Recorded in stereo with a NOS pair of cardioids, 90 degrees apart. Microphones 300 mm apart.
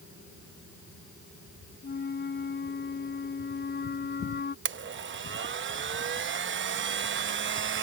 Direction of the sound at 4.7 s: 40° right.